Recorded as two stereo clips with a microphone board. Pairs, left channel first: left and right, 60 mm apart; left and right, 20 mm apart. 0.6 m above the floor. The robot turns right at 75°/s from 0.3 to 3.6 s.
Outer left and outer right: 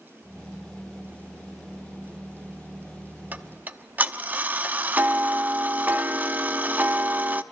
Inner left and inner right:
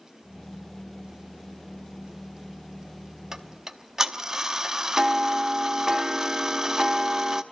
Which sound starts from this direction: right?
Ticking, at 3.3 s.